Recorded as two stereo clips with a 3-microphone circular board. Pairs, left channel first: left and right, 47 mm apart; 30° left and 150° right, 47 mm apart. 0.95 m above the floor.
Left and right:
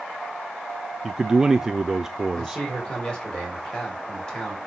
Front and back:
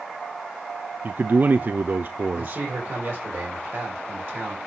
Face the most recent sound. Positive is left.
turn(degrees=160)